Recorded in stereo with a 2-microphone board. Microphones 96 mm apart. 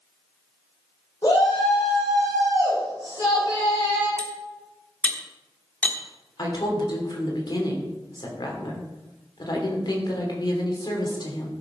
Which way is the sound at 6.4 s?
50° left (ahead or behind).